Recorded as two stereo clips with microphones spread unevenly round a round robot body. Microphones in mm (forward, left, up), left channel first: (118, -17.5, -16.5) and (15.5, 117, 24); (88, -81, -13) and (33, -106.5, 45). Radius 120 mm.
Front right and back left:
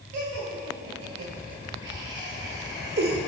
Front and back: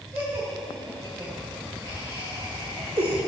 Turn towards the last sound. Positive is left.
turn(degrees=155)